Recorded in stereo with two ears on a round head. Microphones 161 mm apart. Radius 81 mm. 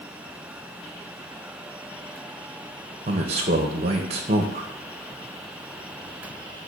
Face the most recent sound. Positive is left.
turn(degrees=-35)  # may be behind; listen again after turning